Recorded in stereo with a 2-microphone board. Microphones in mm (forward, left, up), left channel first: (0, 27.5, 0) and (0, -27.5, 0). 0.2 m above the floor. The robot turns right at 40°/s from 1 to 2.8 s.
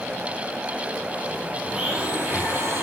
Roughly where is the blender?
Behind.